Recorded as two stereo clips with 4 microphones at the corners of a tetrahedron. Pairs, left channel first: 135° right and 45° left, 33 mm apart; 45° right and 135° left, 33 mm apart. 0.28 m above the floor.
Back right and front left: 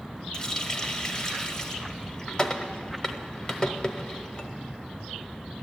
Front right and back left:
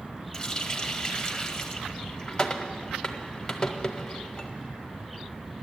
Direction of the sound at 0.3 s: 95° right.